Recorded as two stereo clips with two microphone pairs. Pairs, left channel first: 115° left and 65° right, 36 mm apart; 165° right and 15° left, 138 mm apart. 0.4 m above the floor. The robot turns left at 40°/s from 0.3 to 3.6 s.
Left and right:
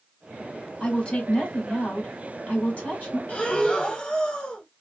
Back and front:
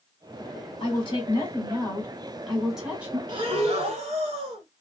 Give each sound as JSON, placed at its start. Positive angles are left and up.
{"t": 0.8, "sound": "a woman speaking", "azimuth_deg": 175, "distance_m": 1.5}
{"t": 3.3, "sound": "breathing", "azimuth_deg": 70, "distance_m": 0.9}